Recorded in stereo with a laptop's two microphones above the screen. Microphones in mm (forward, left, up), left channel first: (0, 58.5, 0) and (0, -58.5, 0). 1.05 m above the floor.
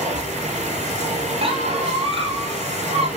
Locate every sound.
0.0 s a machine running: 65° right (ahead or behind), 4.5 m
1.4 s a squeak: 50° right (ahead or behind), 3 m